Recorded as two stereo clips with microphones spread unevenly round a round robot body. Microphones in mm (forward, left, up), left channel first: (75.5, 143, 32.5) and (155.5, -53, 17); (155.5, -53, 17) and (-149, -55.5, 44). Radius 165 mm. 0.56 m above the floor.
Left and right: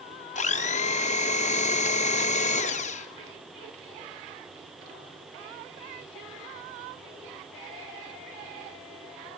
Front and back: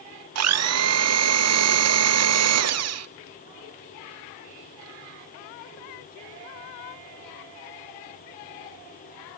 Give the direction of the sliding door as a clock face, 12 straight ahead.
I don't hear a sliding door.